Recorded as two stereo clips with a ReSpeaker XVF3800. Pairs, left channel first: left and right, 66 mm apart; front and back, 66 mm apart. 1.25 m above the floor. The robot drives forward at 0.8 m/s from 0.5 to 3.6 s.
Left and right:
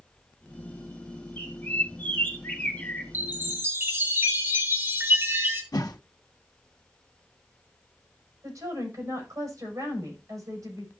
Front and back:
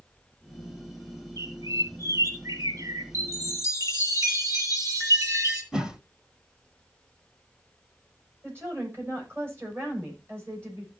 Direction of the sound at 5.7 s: 105° left.